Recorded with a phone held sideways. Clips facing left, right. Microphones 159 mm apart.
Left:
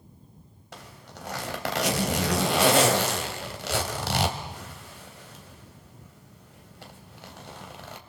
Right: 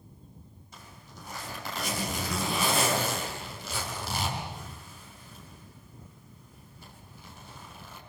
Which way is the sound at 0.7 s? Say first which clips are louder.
Left 6 dB; 85° left.